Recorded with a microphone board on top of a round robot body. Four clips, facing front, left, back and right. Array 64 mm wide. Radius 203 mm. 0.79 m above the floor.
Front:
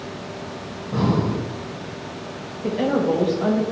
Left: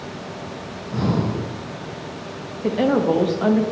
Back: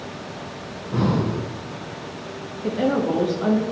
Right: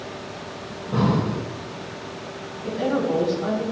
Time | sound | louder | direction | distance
0.7 | breathing | right 2 dB, front 1 dB | 85° right | 2.5 m
2.6 | a woman speaking | left 5 dB, front 1 dB | 85° left | 1.4 m